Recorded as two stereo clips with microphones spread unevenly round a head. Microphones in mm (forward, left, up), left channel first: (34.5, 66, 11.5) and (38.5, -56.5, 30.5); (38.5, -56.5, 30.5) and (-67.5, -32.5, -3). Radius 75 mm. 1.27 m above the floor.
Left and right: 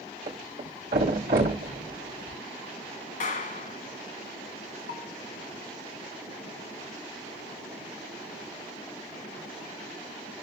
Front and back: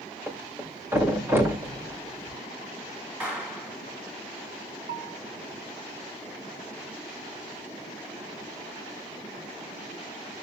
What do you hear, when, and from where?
0.3 s a thud: 120° right, 3 m
3.2 s a clap: 85° left, 1.9 m
4.9 s a bell: 125° left, 0.9 m